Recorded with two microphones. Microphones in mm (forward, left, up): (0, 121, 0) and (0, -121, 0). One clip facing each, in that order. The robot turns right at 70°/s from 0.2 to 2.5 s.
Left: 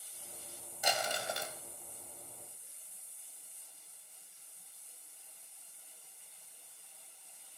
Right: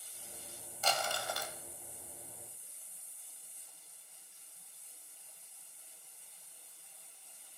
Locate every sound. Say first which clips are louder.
0.8 s crumpling: left 1 dB; 15° left (ahead or behind), 1.0 m; by 1.6 s 25° left (ahead or behind), 1.0 m